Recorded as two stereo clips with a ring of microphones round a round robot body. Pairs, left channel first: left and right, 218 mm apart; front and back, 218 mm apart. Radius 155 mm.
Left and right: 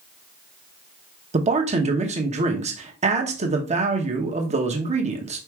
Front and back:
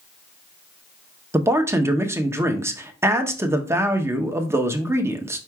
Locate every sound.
1.3 s a man speaking: 110° right, 0.8 m